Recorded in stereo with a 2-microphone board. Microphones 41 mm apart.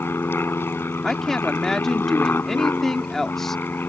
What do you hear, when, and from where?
0.0 s an aircraft: 65° left (ahead or behind); by 3.9 s 55° left (ahead or behind)
1.0 s a woman speaking: 10° left (ahead or behind)